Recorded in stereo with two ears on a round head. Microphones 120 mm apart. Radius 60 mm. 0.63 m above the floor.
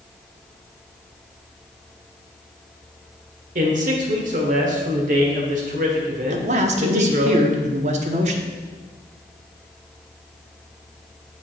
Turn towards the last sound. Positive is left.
turn(degrees=-55)  # may be behind; listen again after turning